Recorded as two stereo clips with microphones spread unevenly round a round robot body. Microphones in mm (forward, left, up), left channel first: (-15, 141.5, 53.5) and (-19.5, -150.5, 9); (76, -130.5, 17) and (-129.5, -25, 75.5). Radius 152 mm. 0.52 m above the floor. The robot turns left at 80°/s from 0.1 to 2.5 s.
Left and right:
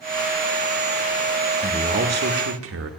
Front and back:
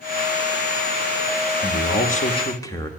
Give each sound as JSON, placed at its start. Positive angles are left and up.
{"t": 1.6, "sound": "a man speaking", "azimuth_deg": -15, "distance_m": 1.0}